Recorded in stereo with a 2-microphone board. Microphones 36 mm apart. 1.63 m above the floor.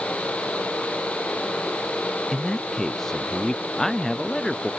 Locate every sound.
2.3 s a man speaking: 10° left (ahead or behind)